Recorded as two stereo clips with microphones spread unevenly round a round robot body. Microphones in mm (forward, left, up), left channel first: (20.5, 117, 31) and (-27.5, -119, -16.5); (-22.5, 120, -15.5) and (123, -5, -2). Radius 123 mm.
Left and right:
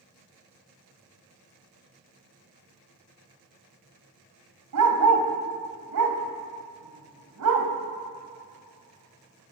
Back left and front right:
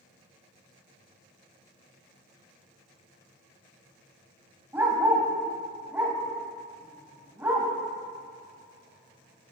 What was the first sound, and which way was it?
A dog barking, 120° right.